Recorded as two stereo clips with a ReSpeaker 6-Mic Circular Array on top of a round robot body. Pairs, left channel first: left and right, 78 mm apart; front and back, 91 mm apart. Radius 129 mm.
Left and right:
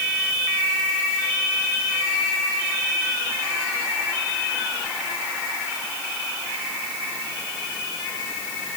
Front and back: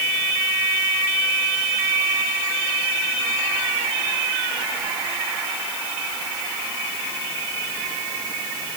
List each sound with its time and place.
Only background noise.